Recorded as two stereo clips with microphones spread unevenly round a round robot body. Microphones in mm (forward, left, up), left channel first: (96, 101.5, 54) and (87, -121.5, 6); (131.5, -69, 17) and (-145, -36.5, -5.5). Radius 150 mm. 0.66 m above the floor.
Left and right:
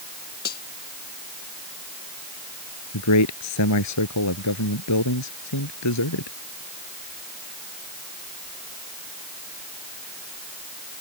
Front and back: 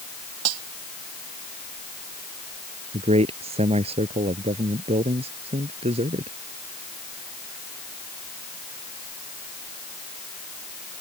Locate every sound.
0.5 s cutlery clinking: 150° left
2.9 s a man speaking: 100° left